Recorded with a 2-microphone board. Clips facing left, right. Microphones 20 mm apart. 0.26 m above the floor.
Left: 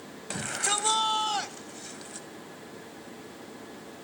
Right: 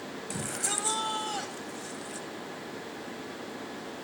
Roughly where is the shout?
Left.